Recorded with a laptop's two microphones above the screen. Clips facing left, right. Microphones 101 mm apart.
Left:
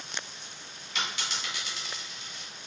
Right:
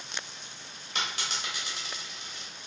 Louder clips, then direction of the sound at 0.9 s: Even; 40° right (ahead or behind).